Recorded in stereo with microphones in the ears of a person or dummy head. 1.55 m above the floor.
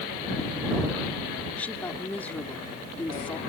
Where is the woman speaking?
10° left (ahead or behind).